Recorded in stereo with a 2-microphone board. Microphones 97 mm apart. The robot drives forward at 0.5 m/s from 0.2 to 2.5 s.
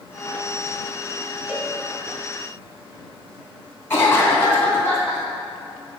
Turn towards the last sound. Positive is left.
turn(degrees=25)  # may be behind; listen again after turning